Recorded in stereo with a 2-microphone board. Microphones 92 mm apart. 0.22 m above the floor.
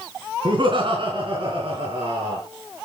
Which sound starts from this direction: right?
Laughter, at 0.5 s.